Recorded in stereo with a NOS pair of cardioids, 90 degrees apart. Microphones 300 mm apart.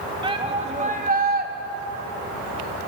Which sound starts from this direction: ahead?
A shout, at 0.2 s.